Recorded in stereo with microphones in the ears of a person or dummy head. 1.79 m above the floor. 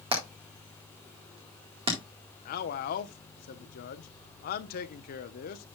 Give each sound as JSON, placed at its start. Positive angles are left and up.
{"t": 0.1, "sound": "hammering", "side_deg": -30, "distance_m": 1.8}
{"t": 2.5, "sound": "a man speaking", "side_deg": 45, "distance_m": 0.8}